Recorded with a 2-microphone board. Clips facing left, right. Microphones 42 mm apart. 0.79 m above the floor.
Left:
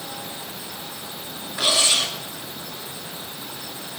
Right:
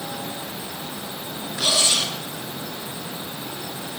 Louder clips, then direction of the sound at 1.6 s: Left 1 dB; 20° left (ahead or behind).